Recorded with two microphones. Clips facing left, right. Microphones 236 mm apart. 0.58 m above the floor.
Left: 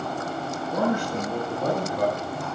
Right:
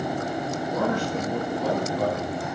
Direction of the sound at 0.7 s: 65° left (ahead or behind).